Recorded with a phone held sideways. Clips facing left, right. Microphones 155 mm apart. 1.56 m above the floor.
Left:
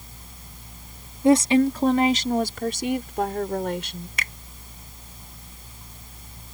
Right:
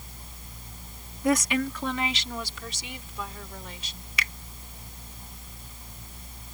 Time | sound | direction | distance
1.2 | a woman speaking | 30° left (ahead or behind) | ?
4.2 | a finger snap | 50° left (ahead or behind) | ?